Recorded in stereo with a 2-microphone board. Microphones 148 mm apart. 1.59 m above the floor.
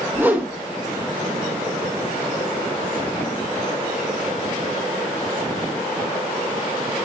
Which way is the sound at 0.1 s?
15° right (ahead or behind).